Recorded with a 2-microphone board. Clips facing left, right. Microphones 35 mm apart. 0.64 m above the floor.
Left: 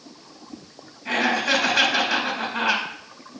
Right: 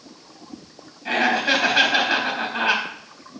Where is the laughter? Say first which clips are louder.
Right 2 dB; 25° right (ahead or behind), 3.5 m.